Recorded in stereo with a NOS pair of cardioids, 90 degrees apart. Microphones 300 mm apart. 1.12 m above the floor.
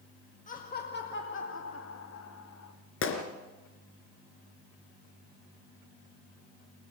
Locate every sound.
0.5 s laughter: 25° left, 2.0 m; by 2.7 s 60° left, 2.5 m
3.0 s a gunshot: 40° left, 3.5 m